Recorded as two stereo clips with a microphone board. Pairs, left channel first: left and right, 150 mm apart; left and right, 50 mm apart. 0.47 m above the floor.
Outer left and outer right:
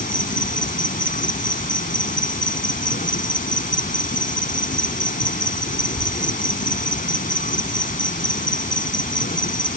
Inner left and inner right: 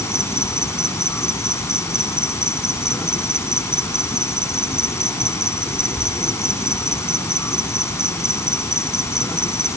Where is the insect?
65° left (ahead or behind).